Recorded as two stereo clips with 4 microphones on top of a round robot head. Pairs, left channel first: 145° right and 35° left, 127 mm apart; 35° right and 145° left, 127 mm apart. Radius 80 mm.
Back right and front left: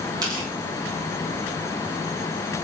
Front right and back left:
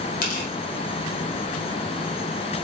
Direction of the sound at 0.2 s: 30° right.